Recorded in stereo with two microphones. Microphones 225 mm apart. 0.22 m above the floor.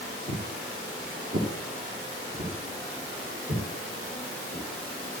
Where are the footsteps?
45° right (ahead or behind), 2.5 m; by 5.2 s 40° right (ahead or behind), 8 m.